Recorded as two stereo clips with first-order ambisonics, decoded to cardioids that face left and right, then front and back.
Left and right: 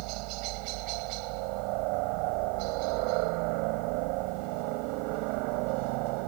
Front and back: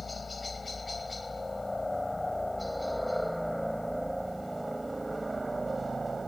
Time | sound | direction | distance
0.0 | a helicopter | 75° right | ?